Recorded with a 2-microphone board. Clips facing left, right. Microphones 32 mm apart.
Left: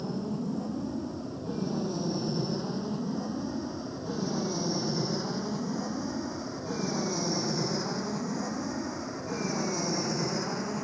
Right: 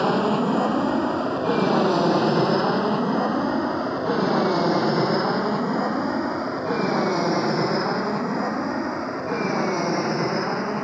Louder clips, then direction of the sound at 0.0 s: Right 13 dB; 70° right (ahead or behind).